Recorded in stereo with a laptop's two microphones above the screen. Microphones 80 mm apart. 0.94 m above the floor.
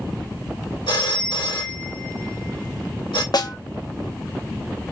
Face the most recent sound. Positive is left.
turn(degrees=60)  # may be behind; listen again after turning